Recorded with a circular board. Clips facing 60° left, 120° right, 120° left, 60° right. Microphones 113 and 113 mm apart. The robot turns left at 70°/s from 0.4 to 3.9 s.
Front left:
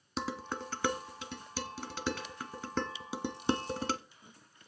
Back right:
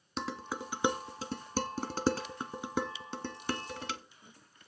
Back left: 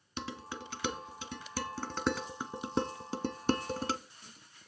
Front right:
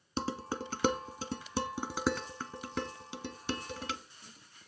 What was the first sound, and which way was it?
Dishes clattering, 30° right.